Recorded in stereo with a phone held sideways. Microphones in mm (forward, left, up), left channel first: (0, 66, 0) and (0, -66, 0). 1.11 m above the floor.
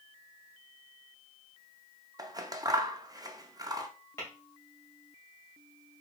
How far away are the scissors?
About 0.5 m.